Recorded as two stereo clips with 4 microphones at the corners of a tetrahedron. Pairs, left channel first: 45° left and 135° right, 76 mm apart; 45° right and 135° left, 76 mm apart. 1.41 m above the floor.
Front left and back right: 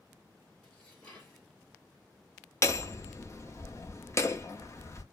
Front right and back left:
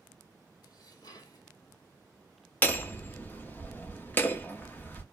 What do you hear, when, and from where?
0.6 s dishes clattering: 30° right, 1.4 m
2.6 s hammering: 10° left, 0.7 m